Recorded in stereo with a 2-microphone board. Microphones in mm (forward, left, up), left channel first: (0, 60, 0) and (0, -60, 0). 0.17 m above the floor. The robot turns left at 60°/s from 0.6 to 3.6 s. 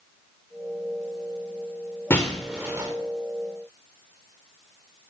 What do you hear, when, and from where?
2.1 s breaking glass: 20° left (ahead or behind), 4.5 m; by 2.9 s 25° right (ahead or behind), 4.5 m